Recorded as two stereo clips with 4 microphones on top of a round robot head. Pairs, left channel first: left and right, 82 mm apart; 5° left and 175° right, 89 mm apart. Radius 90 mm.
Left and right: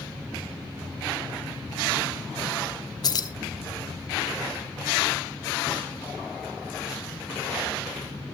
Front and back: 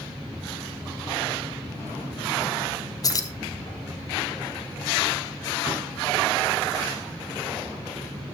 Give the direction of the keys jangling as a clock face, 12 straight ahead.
10 o'clock.